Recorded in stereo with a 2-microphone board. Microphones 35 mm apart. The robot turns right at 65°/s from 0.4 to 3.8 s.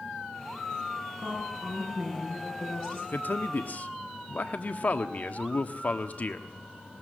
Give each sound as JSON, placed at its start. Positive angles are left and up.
{"t": 1.2, "sound": "a woman speaking", "azimuth_deg": -95, "distance_m": 8.5}
{"t": 3.1, "sound": "a man speaking", "azimuth_deg": 85, "distance_m": 1.2}